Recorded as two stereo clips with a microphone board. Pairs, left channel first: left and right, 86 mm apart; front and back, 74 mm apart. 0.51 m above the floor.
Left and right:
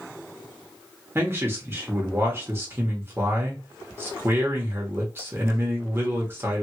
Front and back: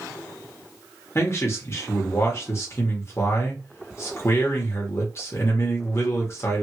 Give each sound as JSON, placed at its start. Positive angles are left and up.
{"t": 1.1, "sound": "a man speaking", "azimuth_deg": -40, "distance_m": 1.1}